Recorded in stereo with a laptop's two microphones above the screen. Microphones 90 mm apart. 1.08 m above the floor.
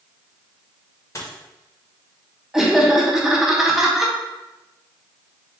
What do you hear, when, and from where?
1.1 s a dropped coin: 35° left (ahead or behind), 0.9 m
2.5 s laughter: 5° right (ahead or behind), 0.8 m